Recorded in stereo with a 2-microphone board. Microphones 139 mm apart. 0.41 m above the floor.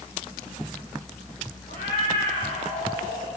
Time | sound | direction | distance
1.7 | a cat meowing | 90° left | 8.5 m